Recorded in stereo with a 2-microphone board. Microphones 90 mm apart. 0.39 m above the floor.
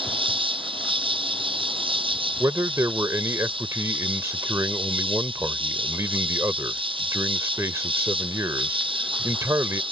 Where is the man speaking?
35° right (ahead or behind).